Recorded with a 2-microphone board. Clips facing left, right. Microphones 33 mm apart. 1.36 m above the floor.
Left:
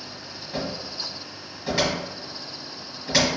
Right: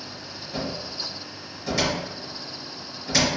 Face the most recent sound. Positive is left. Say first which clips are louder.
# even
turn(degrees=25)  # may be behind; listen again after turning